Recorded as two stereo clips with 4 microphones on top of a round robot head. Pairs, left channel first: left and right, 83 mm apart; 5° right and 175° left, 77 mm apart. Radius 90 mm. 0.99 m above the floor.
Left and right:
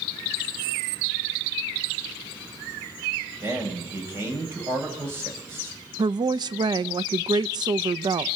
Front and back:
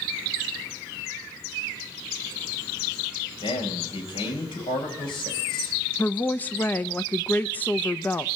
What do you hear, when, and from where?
3.4 s a man speaking: 25° right, 7.5 m
6.0 s a woman speaking: 70° right, 0.7 m